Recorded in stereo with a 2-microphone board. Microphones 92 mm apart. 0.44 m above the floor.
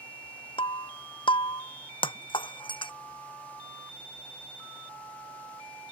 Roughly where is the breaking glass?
Left.